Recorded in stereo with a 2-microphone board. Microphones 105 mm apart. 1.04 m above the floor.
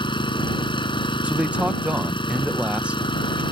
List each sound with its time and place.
0.0 s an engine running: 50° left (ahead or behind)
1.2 s a man speaking: 10° right (ahead or behind)